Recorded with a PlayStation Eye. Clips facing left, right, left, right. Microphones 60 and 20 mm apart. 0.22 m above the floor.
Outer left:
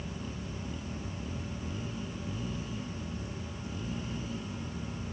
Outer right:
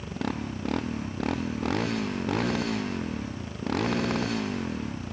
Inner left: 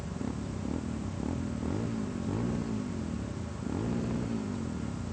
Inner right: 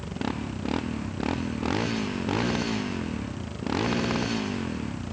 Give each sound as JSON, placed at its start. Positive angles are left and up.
{"t": 0.0, "sound": "a motorcycle", "side_deg": -70}